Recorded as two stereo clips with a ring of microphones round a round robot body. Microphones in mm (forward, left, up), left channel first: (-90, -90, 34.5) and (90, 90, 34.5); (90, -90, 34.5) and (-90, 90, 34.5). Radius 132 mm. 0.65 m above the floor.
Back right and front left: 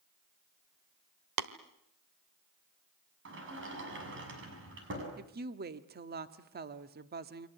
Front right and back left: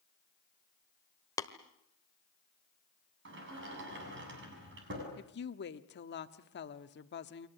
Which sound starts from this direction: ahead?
A woman speaking, at 5.2 s.